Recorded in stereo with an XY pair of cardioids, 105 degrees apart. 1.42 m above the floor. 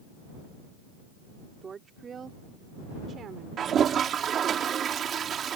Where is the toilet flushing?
55° right.